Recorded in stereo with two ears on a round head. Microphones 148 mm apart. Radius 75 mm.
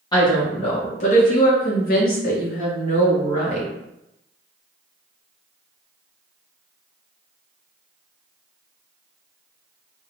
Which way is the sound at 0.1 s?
25° left (ahead or behind).